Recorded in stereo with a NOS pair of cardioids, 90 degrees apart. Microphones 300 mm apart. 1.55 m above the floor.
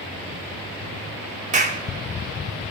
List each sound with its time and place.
1.5 s a clap: 25° right, 1.9 m